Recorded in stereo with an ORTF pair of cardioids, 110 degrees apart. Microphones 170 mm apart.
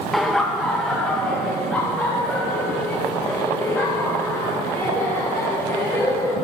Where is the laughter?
Straight ahead, 0.8 m; by 6.3 s 10° left, 4 m.